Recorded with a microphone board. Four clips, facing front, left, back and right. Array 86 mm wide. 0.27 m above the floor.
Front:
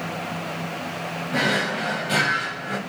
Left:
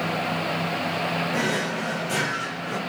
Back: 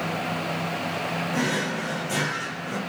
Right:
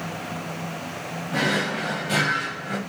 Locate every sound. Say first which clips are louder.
1.3 s a drawer: right 1 dB, front 5 dB; 30° right, 0.9 m